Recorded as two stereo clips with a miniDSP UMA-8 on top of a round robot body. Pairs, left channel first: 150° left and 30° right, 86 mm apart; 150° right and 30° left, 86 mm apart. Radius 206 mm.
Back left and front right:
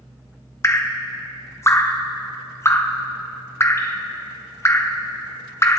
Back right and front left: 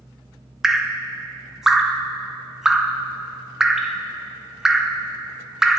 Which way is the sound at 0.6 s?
110° left.